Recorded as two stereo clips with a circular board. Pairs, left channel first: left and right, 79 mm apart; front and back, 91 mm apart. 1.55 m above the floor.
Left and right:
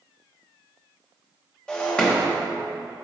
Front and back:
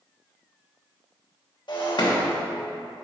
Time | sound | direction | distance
1.7 | breaking glass | 15° left | 1.4 m